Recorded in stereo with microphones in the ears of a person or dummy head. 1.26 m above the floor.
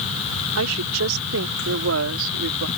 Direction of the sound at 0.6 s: 85° right.